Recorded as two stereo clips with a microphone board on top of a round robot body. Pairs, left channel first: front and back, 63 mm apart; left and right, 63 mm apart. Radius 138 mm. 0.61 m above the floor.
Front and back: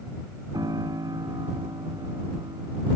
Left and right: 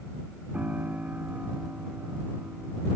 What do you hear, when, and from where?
0.5 s a piano: 155° right